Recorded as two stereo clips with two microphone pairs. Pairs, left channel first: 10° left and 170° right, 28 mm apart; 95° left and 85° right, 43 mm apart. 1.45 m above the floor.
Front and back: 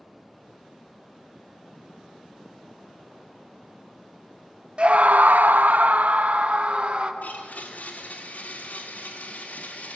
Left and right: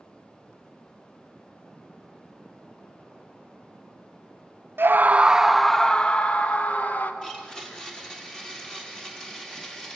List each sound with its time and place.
4.8 s a scream: 120° right, 0.7 m; by 7.1 s 145° left, 1.8 m
7.2 s a blender: 20° left, 3 m